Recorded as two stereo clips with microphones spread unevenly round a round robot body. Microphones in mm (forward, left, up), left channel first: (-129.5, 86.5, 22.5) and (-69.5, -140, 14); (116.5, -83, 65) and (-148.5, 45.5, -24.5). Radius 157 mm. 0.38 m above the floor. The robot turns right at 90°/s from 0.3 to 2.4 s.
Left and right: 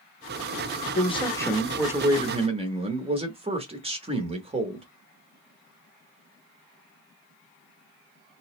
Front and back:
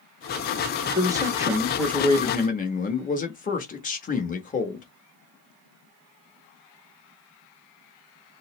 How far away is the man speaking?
About 0.9 m.